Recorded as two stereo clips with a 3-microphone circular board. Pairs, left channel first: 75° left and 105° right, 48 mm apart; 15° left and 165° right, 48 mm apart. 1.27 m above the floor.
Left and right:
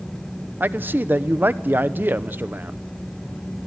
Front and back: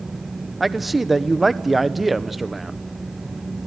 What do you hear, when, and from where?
0.6 s a man speaking: 80° right, 0.8 m